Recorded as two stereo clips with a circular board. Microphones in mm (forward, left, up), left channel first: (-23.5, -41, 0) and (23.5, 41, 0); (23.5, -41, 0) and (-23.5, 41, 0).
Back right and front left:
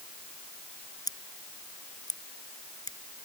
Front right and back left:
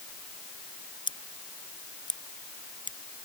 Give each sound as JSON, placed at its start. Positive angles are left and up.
{"t": 1.1, "sound": "scissors", "azimuth_deg": -80}